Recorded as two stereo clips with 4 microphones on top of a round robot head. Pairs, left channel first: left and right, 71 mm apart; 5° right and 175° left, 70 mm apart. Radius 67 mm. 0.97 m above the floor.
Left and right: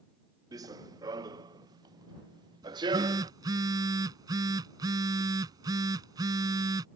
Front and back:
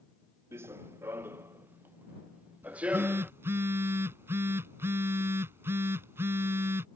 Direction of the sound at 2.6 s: 125° right.